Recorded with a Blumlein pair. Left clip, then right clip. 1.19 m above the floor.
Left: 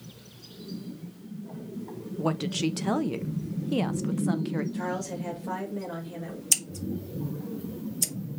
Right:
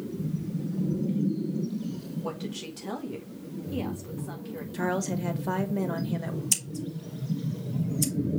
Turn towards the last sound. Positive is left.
turn(degrees=10)